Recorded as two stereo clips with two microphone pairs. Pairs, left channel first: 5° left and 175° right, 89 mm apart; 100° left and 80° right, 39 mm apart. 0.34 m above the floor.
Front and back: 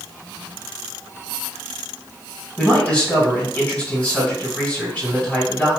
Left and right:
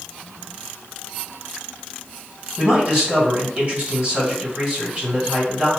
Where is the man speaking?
55° right, 1.6 m.